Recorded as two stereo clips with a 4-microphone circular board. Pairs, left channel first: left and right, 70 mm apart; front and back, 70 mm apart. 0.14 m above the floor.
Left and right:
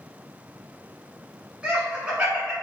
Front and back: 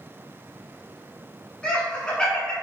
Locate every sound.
1.6 s laughter: 50° right, 1.0 m